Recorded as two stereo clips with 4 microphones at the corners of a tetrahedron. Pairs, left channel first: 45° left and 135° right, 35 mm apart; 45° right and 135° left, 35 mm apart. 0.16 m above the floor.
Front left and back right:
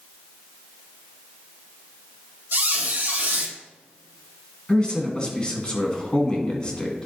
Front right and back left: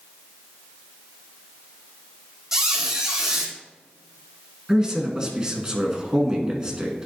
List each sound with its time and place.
2.5 s a squeak: 150° right, 1.7 m
4.7 s a man speaking: 85° left, 1.6 m